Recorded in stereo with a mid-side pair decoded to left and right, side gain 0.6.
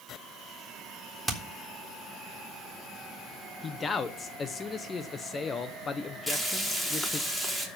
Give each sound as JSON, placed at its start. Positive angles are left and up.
{"t": 1.3, "sound": "hammering", "azimuth_deg": -10, "distance_m": 3.5}
{"t": 3.6, "sound": "a man speaking", "azimuth_deg": 35, "distance_m": 1.3}
{"t": 6.3, "sound": "frying", "azimuth_deg": 10, "distance_m": 4.5}